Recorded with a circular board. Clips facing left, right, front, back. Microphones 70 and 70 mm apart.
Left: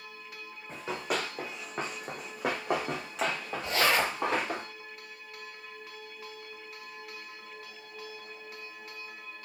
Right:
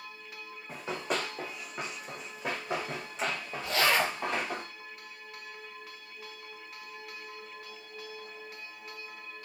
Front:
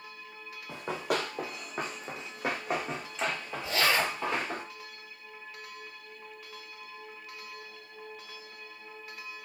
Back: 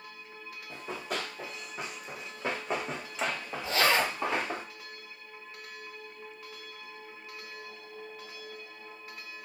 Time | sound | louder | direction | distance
0.7 | running footsteps | even, front 5 dB | 5° right | 1.0 m
3.6 | a zipper | even, back 1 dB | 130° left | 1.7 m